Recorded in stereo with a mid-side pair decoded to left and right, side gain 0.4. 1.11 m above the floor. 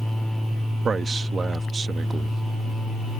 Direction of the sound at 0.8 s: 50° right.